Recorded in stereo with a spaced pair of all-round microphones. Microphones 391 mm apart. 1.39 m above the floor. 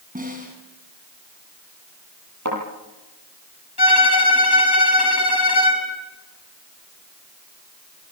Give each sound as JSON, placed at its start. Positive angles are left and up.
{"t": 0.1, "sound": "a snare drum", "side_deg": -20, "distance_m": 7.5}
{"t": 2.5, "sound": "a thud", "side_deg": -45, "distance_m": 9.0}
{"t": 3.8, "sound": "a violin", "side_deg": 75, "distance_m": 6.5}